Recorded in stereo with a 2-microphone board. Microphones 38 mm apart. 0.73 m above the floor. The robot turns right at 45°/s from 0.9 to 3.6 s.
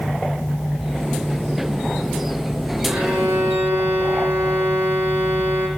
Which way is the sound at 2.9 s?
130° right.